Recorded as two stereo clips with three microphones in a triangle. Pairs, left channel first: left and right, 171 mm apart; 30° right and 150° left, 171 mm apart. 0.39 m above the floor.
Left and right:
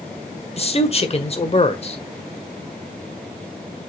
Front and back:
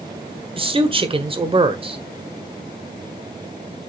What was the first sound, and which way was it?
A man speaking, 115° left.